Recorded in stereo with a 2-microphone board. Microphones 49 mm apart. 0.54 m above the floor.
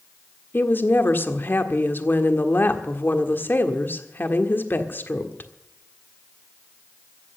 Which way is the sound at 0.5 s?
45° left (ahead or behind).